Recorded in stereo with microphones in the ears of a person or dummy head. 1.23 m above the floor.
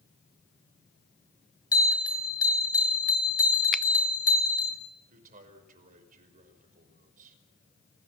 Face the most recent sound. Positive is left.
turn(degrees=-50)  # may be behind; listen again after turning